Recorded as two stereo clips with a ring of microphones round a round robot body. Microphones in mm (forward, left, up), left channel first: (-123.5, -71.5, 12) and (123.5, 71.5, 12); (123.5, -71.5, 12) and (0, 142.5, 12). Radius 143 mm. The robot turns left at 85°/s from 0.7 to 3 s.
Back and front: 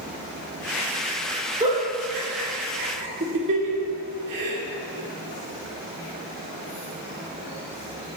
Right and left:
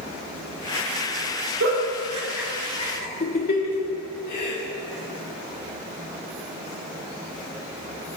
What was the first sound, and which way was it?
A giggle, 105° left.